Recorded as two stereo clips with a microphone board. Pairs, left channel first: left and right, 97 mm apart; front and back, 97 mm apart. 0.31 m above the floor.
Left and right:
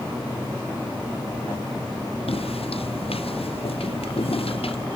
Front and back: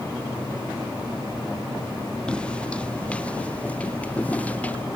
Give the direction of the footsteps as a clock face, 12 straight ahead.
9 o'clock.